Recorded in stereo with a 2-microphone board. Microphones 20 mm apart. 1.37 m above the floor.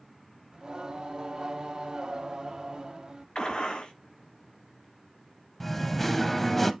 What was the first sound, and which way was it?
Singing, 50° right (ahead or behind).